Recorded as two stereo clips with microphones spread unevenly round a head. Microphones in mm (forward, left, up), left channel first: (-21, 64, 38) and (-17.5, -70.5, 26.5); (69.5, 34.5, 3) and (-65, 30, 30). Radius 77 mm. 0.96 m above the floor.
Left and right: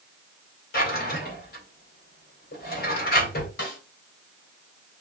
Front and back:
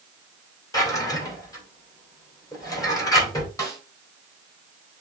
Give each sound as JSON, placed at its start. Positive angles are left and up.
{"t": 0.7, "sound": "a drawer", "azimuth_deg": 65, "distance_m": 2.5}
{"t": 3.6, "sound": "a snare drum", "azimuth_deg": 70, "distance_m": 2.5}